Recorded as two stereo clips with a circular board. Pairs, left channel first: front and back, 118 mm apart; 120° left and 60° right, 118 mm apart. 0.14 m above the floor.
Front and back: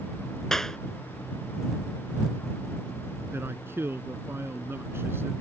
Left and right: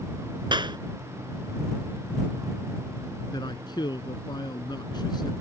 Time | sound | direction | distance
0.5 | a clap | 85° right | ?
3.3 | a man speaking | 120° left | ?